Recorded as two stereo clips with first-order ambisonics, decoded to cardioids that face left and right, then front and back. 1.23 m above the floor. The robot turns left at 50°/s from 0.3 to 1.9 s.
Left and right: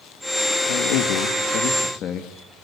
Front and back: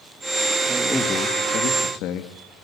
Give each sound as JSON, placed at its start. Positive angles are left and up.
{"t": 0.7, "sound": "a man speaking", "azimuth_deg": 100, "distance_m": 2.0}